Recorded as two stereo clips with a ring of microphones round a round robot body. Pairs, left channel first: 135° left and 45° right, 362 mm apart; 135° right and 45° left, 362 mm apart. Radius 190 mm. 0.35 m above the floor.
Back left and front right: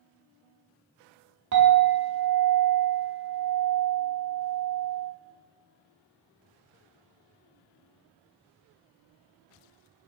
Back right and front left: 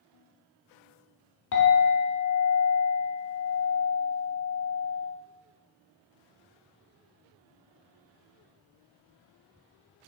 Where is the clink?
90° right, 0.8 m.